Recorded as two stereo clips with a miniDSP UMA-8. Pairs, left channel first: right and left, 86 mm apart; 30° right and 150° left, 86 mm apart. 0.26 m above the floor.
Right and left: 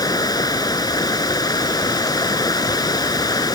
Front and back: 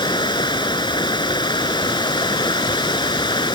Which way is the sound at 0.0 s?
55° right.